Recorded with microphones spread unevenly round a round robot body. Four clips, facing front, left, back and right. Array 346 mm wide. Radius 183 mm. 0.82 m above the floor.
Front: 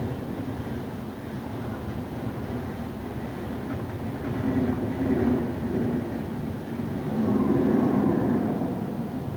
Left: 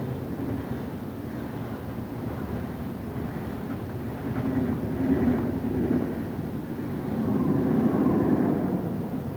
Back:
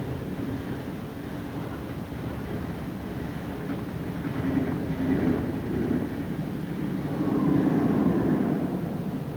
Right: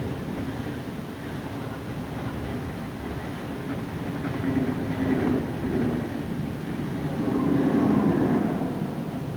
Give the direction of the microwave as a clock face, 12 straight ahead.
No microwave in this recording.